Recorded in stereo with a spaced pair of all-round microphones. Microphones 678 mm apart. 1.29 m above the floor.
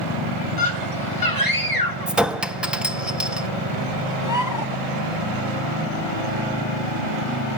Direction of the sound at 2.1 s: Centre (ahead or behind).